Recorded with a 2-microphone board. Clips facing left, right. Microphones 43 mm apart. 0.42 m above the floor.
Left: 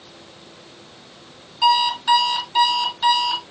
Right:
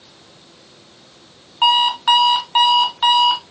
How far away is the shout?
No shout in this recording.